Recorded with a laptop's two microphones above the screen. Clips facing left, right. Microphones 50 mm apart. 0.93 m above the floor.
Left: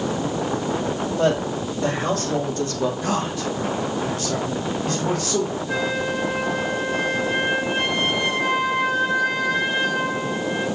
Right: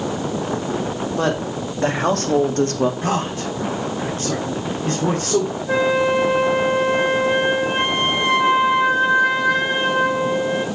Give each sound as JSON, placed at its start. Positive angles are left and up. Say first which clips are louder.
{"t": 1.2, "sound": "a woman speaking", "louder": "left 1 dB", "side_deg": -75, "distance_m": 3.0}
{"t": 3.0, "sound": "a man speaking", "louder": "right 2 dB", "side_deg": -40, "distance_m": 2.5}
{"t": 5.7, "sound": "a flute", "louder": "right 6 dB", "side_deg": -30, "distance_m": 5.5}